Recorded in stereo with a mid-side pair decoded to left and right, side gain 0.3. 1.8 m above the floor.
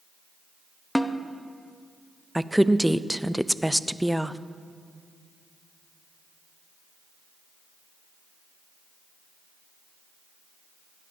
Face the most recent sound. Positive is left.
turn(degrees=-5)